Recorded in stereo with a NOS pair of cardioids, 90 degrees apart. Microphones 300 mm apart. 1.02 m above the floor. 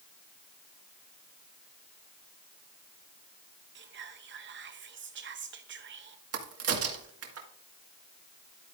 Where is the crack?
50° right, 1.7 m.